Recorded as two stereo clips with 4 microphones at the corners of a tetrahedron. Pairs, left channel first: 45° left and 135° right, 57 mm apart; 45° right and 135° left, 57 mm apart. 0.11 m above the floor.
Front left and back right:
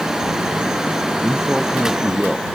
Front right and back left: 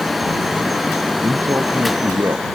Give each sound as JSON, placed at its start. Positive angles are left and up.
{"t": 1.2, "sound": "a man speaking", "azimuth_deg": 145}